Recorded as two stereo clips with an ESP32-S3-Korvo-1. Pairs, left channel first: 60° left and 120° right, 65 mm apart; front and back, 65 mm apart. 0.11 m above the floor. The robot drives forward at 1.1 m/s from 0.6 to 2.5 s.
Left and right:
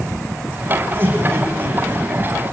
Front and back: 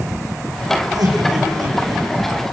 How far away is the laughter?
About 6.5 m.